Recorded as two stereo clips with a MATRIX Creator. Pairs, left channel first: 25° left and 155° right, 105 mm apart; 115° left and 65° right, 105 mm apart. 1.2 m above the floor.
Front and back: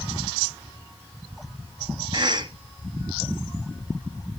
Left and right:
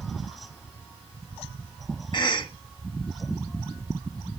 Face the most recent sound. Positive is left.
turn(degrees=155)